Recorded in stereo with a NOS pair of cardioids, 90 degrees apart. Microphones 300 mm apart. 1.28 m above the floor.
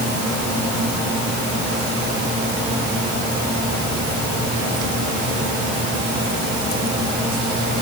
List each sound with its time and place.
Only background noise.